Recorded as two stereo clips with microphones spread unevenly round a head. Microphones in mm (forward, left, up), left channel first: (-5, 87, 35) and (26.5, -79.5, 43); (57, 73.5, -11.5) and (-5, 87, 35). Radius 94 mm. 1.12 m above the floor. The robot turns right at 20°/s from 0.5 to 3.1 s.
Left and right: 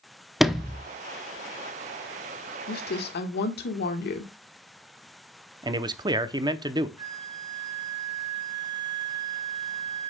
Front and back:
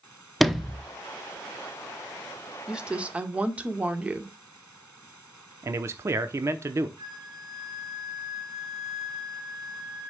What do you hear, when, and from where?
0.4 s a sliding door: 10° left, 0.8 m; by 0.8 s 15° left, 0.8 m
2.7 s a woman speaking: 75° left, 1.6 m; by 4.3 s 85° left, 1.6 m
5.6 s a man speaking: 95° right, 0.7 m
7.0 s a flute: 150° right, 4 m